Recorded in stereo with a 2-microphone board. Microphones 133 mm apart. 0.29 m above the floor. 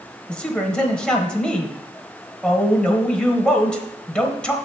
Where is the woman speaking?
10° left (ahead or behind), 1.0 m.